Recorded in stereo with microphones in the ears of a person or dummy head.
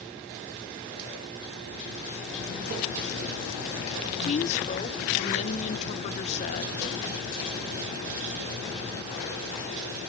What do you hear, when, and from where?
4.0 s a woman speaking: 35° left (ahead or behind), 1.1 m